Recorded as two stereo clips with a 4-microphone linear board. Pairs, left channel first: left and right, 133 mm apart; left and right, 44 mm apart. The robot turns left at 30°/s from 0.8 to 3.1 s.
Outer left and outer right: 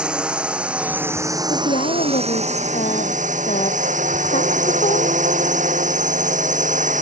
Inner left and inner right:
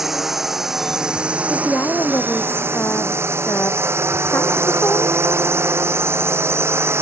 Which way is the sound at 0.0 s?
5° right (ahead or behind).